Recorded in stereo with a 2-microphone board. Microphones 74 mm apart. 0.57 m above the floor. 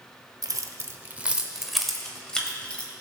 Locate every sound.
0.4 s keys jangling: 60° right (ahead or behind), 0.9 m; by 2.9 s 15° left (ahead or behind), 1.9 m